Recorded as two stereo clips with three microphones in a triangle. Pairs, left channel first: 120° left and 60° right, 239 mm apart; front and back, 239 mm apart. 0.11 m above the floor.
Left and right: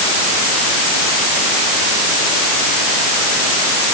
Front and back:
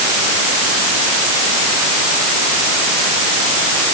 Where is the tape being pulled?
No tape being pulled in this recording.